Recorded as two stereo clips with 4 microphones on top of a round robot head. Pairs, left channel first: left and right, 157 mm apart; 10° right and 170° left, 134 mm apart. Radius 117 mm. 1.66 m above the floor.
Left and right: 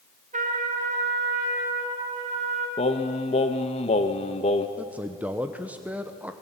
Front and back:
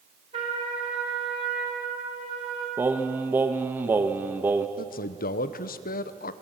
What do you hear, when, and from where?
0.3 s a trumpet: 130° right, 4.5 m
2.8 s singing: 105° left, 0.9 m
4.8 s a man speaking: 5° right, 1.1 m